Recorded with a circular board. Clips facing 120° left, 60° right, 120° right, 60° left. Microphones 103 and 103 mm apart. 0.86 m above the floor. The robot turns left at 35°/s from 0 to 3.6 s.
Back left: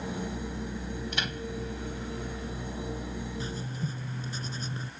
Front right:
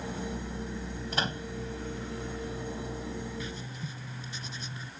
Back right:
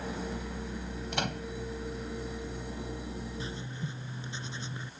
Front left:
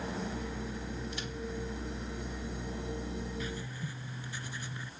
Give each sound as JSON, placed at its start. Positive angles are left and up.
{"t": 1.1, "sound": "a microwave", "azimuth_deg": -110}
{"t": 3.4, "sound": "writing", "azimuth_deg": 180}